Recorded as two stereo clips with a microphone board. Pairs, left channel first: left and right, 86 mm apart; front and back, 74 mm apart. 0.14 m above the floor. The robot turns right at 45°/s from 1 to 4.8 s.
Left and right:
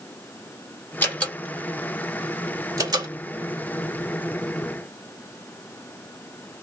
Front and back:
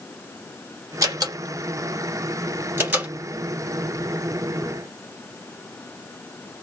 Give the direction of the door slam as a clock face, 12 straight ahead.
7 o'clock.